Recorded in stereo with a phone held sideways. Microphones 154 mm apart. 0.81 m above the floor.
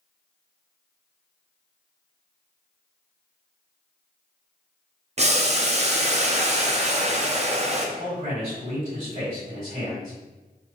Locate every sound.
5.2 s boiling: 40° right (ahead or behind), 0.6 m
8.0 s a man speaking: 40° right (ahead or behind), 1.9 m